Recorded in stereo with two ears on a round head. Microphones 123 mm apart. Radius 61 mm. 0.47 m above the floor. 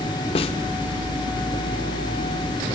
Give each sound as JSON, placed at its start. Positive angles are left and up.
{"t": 0.3, "sound": "a snare drum", "side_deg": 40, "distance_m": 0.7}